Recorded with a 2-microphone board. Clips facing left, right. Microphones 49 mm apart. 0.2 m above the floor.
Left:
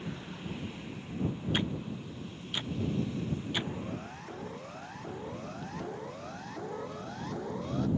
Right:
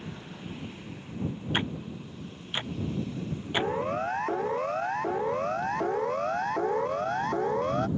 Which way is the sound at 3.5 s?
70° right (ahead or behind).